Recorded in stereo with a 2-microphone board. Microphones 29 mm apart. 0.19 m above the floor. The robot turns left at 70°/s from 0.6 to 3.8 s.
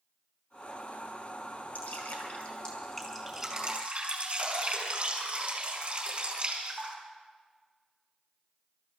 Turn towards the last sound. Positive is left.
turn(degrees=-45)